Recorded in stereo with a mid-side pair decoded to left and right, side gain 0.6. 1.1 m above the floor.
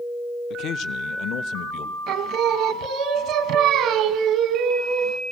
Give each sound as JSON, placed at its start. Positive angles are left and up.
{"t": 0.5, "sound": "a man speaking", "azimuth_deg": 55, "distance_m": 0.6}
{"t": 2.1, "sound": "singing", "azimuth_deg": -65, "distance_m": 1.2}